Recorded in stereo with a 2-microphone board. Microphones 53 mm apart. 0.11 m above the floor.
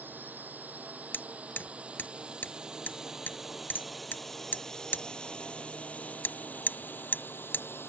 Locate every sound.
0.0 s a drone: 35° right (ahead or behind); by 7.9 s 45° left (ahead or behind)
1.1 s hammering: 40° left (ahead or behind)